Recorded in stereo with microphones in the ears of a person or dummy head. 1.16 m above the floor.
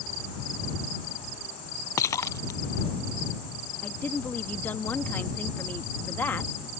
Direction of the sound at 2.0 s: 15° left (ahead or behind).